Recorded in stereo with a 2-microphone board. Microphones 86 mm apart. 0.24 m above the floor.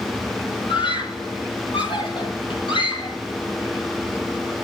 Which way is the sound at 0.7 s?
70° left (ahead or behind).